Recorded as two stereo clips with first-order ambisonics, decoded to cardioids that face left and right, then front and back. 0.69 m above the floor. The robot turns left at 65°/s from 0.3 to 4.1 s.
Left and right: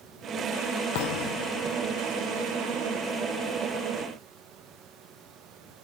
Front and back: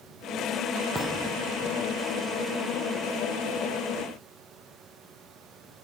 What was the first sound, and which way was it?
A thud, 100° left.